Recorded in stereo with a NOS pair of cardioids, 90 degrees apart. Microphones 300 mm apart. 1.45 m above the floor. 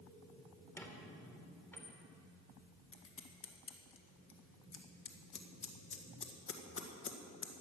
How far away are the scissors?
About 1.9 m.